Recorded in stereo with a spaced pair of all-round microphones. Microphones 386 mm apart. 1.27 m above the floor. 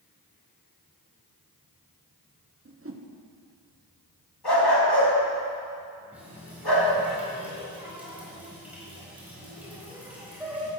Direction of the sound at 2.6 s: 35° right (ahead or behind).